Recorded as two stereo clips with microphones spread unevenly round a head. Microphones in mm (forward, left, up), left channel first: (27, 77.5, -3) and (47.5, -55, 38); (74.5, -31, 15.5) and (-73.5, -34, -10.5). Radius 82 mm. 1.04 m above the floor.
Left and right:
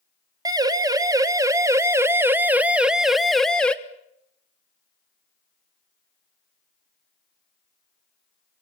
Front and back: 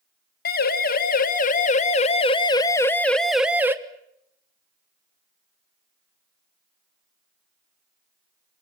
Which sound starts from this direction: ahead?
A siren, at 0.5 s.